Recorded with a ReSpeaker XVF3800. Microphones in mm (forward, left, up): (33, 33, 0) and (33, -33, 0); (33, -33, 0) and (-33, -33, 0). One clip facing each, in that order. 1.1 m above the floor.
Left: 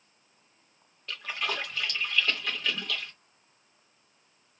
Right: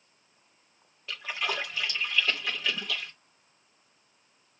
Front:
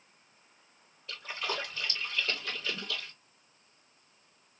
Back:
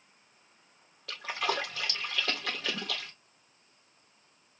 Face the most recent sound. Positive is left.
turn(degrees=-175)